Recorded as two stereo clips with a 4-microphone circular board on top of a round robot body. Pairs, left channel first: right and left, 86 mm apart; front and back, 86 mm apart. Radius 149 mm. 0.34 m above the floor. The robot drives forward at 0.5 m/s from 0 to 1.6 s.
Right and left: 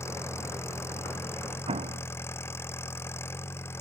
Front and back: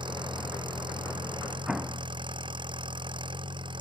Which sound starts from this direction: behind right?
An engine running, at 0.0 s.